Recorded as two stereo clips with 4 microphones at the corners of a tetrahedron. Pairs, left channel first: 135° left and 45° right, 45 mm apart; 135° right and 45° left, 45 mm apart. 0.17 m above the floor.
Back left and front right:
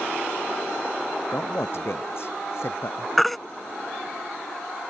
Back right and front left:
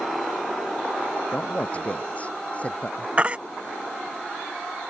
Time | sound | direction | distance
1.3 | a man speaking | 165° left | ?
3.2 | a baby crying | 50° left | ?